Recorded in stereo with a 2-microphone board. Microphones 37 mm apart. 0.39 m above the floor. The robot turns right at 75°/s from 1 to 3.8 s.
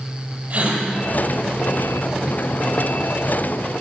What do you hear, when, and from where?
0.5 s a gasp: 50° right (ahead or behind), 1.3 m